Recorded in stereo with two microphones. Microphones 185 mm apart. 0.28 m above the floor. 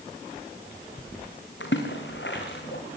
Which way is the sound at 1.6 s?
80° left.